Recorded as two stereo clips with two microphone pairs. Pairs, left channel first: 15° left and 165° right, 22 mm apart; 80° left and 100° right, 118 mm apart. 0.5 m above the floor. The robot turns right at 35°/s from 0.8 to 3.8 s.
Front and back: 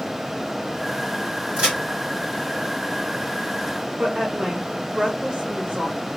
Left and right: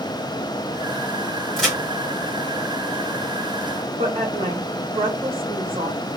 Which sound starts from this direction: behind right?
A woman speaking, at 4.0 s.